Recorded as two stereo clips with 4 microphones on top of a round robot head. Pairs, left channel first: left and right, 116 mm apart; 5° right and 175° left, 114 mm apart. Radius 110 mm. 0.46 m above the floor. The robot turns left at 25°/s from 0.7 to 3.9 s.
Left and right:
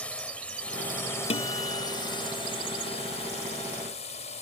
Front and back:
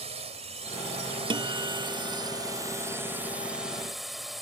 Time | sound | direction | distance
0.0 | a drone | 170° left | ?
1.3 | a guitar | 130° left | ?